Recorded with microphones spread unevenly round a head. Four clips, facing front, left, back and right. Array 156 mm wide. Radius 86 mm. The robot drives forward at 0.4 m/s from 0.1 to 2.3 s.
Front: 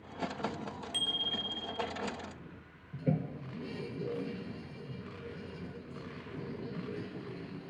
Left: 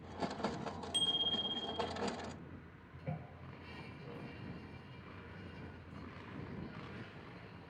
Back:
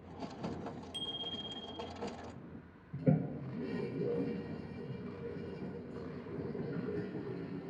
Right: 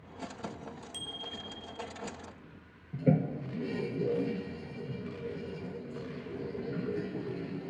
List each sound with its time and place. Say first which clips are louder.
0.9 s a bicycle bell: left 2 dB, front 5 dB; 20° left; by 1.9 s 25° left
2.9 s a toilet flushing: right 19 dB, back 2 dB; 110° right